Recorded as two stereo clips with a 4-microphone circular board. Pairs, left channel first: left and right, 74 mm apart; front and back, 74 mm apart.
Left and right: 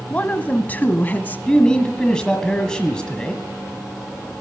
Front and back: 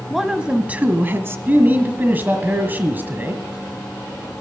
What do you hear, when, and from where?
0.1 s a woman speaking: 100° left, 1.2 m; by 1.4 s 145° left, 1.6 m
1.5 s a man speaking: 155° left, 1.5 m